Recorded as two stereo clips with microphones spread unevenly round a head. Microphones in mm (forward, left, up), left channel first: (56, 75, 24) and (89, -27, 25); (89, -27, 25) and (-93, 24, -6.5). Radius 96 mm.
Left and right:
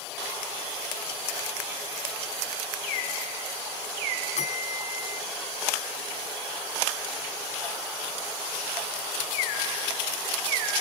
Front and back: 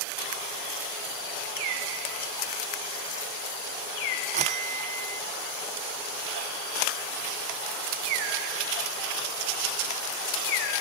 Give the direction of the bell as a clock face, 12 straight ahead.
8 o'clock.